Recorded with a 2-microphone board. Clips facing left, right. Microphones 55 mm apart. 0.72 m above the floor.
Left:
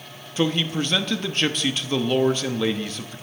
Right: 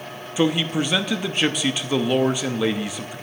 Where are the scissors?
I don't hear scissors.